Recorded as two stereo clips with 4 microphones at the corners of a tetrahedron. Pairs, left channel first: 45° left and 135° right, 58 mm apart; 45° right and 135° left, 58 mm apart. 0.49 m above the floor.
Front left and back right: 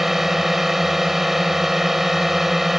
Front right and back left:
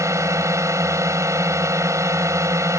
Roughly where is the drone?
Behind left.